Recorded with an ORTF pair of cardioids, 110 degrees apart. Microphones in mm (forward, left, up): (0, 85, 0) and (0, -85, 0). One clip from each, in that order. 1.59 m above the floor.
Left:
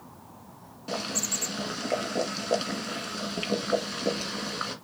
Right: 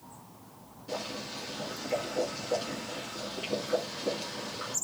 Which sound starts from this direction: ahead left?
Boiling, at 0.9 s.